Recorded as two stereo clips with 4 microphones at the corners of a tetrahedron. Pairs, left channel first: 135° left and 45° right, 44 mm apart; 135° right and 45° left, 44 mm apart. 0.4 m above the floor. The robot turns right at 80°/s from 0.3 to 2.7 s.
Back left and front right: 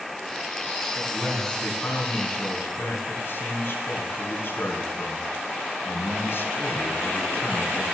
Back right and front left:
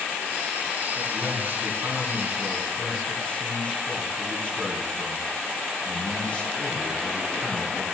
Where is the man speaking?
25° left, 3.5 m; by 7.8 s 165° left, 3.5 m.